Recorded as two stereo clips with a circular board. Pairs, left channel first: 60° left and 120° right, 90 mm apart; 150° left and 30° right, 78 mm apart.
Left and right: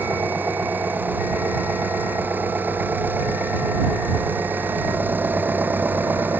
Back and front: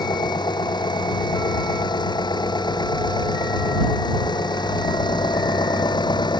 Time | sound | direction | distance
0.0 | an engine running | 170° left | ?